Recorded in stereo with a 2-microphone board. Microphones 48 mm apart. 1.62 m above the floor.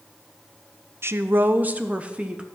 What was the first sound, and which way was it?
A woman speaking, 55° right (ahead or behind).